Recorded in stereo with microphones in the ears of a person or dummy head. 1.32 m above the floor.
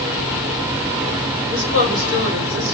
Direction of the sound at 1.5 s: 70° right (ahead or behind).